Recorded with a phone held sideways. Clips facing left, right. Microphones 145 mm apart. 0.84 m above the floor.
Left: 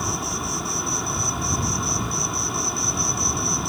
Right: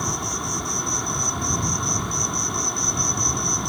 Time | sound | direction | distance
0.0 | an insect | centre (ahead or behind) | ?